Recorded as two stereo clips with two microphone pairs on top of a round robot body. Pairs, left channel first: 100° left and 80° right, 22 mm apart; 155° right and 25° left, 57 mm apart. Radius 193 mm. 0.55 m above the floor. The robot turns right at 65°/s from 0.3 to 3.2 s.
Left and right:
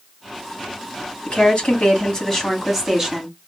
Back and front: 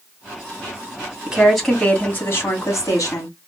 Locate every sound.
1.3 s a woman speaking: 95° left, 2 m; by 3.3 s 140° right, 2 m